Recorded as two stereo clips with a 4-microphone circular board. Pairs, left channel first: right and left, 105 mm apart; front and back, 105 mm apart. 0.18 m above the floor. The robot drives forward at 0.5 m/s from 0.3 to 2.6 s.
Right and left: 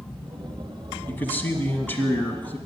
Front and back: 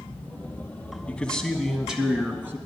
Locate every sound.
1.1 s a man speaking: 60° right, 1.4 m; by 2.6 s 140° right, 1.5 m